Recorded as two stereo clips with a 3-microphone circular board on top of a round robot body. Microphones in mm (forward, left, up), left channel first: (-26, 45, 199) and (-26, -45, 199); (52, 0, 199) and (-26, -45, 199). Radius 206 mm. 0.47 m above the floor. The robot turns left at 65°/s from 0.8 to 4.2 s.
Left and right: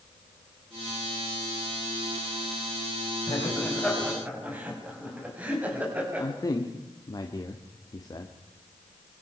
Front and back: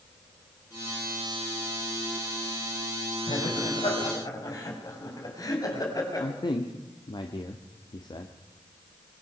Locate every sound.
3.3 s laughter: 45° left, 5.5 m; by 6.3 s 15° right, 5.5 m
6.2 s a man speaking: 50° left, 1.9 m